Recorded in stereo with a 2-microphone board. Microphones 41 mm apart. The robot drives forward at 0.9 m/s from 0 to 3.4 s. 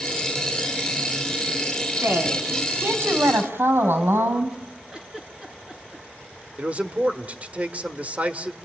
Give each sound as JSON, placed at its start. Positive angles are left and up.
{"t": 2.0, "sound": "a woman speaking", "side_deg": -65, "distance_m": 3.5}
{"t": 4.9, "sound": "a giggle", "side_deg": -25, "distance_m": 4.5}
{"t": 6.6, "sound": "a man speaking", "side_deg": -35, "distance_m": 1.4}